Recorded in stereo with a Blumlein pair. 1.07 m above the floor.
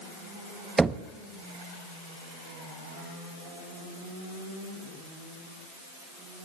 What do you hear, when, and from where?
0.8 s knocking: 10° right, 0.6 m